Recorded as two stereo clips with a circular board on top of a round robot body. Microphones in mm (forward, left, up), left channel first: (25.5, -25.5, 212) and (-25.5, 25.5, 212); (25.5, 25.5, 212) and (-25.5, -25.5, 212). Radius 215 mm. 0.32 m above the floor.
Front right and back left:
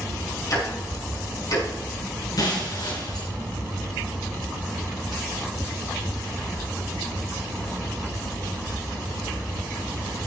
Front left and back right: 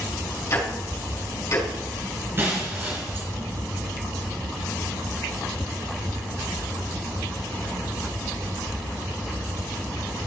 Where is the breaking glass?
75° right, 3.5 m.